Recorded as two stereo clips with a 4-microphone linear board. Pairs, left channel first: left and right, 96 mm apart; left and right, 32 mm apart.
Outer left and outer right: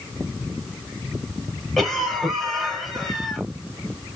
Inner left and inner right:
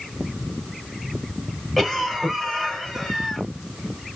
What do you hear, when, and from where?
1.8 s a cough: centre (ahead or behind), 2.5 m